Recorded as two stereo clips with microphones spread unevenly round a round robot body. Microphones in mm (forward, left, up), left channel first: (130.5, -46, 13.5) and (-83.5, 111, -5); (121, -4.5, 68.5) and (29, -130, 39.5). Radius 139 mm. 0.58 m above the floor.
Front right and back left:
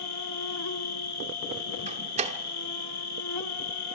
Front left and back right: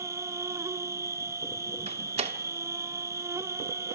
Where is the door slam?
155° right, 1.2 m.